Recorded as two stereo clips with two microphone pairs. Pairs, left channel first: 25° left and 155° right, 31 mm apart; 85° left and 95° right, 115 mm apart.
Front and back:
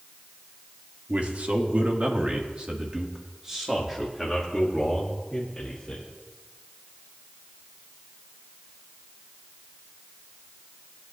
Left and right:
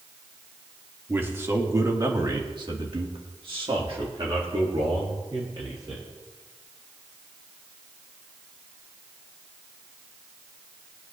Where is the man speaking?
160° right, 1.7 m; by 6.0 s 50° right, 2.5 m.